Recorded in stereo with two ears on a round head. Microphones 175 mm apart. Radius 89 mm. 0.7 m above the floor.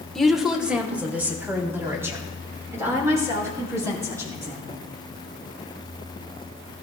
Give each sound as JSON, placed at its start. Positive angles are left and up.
{"t": 0.1, "sound": "a woman speaking", "side_deg": 0, "distance_m": 1.6}